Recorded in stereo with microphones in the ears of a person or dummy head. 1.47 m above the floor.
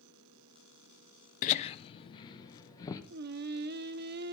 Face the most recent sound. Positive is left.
turn(degrees=-60)  # may be behind; listen again after turning